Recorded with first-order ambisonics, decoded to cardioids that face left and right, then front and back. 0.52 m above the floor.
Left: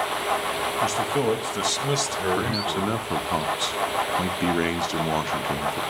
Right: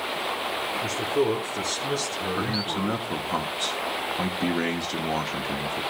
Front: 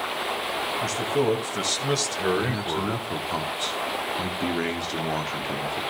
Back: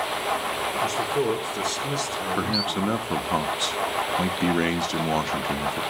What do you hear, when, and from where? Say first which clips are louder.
0.8 s a man speaking: left 1 dB, even; 65° left, 3 m; by 3.4 s 10° right, 1.4 m
2.4 s a man speaking: left 2 dB, back 2 dB; 150° left, 0.8 m